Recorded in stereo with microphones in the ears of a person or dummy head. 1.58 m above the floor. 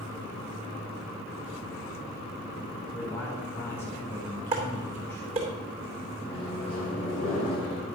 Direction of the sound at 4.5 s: 30° right (ahead or behind).